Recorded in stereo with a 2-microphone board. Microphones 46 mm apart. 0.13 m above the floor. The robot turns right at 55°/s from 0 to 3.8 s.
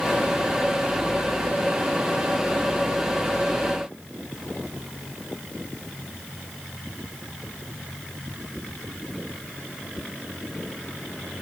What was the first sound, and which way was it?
Only background noise.